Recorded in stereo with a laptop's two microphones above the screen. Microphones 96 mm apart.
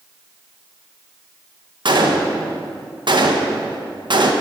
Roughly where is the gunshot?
Right.